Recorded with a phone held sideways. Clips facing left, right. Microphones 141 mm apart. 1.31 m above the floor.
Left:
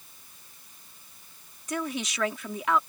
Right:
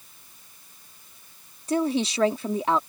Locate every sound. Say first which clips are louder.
1.7 s a woman speaking: right 8 dB; 35° right (ahead or behind)